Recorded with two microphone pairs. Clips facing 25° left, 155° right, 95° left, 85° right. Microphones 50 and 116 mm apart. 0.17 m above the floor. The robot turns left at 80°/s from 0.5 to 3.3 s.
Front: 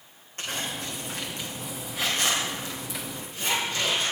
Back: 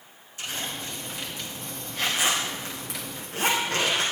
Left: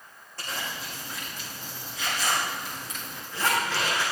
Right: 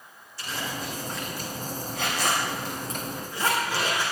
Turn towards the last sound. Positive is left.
turn(degrees=-160)